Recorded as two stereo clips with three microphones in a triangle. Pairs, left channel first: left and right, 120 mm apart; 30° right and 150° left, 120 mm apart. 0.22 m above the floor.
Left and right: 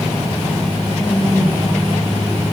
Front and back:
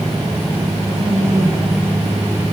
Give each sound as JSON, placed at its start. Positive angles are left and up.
{"t": 0.9, "sound": "a woman speaking", "azimuth_deg": 130, "distance_m": 8.5}